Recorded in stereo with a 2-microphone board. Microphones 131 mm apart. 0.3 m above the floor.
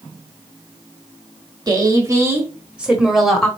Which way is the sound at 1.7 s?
30° right (ahead or behind).